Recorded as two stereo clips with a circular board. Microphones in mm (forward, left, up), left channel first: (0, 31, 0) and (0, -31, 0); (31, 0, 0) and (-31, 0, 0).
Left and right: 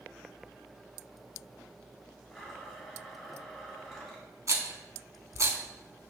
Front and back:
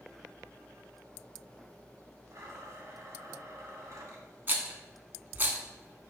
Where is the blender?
175° left, 1.5 m.